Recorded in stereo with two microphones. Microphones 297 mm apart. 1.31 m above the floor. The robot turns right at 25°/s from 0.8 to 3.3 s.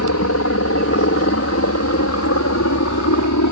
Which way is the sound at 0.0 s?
60° left (ahead or behind).